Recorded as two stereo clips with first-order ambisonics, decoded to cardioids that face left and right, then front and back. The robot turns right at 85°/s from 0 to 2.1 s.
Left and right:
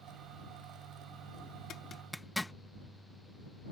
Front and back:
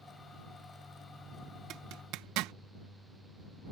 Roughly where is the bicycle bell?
No bicycle bell in this recording.